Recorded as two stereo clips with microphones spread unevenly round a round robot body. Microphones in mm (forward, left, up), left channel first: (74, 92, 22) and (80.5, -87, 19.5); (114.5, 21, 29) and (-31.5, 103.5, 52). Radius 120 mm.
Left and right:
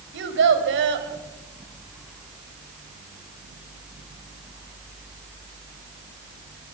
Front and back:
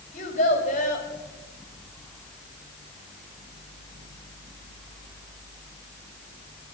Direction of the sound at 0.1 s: 85° right.